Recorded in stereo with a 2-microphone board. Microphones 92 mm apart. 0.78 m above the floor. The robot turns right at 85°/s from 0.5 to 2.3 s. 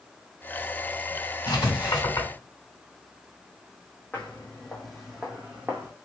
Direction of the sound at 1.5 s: 65° left (ahead or behind).